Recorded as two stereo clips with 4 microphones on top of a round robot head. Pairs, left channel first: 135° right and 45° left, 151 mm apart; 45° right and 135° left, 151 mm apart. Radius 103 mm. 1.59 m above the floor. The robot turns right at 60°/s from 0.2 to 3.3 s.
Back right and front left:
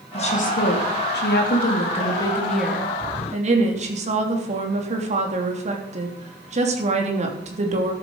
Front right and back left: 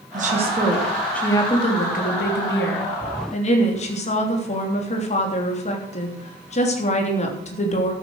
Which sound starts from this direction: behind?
A woman speaking, at 0.1 s.